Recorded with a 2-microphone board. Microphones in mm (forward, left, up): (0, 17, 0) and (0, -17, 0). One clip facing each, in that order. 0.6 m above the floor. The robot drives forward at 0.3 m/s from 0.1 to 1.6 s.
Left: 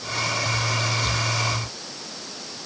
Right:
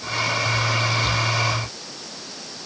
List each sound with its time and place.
Only background noise.